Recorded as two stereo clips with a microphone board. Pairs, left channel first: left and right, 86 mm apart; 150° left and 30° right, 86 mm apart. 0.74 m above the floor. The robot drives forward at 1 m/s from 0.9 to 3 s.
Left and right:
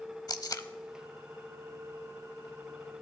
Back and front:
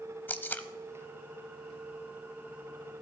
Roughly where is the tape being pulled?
Left.